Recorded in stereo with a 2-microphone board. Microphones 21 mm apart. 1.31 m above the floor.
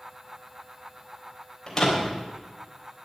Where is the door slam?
20° left (ahead or behind), 3.5 m.